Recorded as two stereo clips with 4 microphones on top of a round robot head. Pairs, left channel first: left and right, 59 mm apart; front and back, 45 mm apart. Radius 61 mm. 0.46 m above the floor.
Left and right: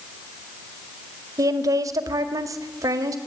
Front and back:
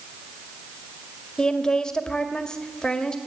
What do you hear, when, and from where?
1.4 s a woman speaking: 75° right, 1.9 m